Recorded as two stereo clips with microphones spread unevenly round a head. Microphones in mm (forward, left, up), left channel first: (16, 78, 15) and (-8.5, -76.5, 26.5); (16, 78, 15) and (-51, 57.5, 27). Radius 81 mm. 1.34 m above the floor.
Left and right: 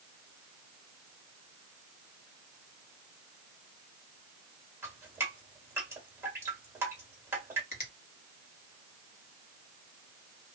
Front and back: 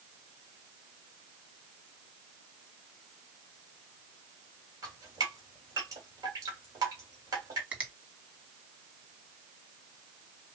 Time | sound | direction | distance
4.8 | dripping | 170° right | 1.7 m
7.7 | a finger snap | 125° left | 1.8 m